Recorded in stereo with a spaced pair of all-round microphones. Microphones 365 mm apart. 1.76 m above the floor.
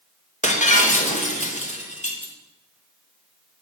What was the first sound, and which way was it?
Breaking glass, 20° left (ahead or behind).